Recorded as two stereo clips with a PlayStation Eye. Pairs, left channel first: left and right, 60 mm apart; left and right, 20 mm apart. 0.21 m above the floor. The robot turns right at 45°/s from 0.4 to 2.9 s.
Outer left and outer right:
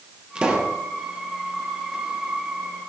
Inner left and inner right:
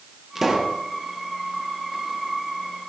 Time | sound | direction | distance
0.3 | a pop | 15° right (ahead or behind) | 2.5 m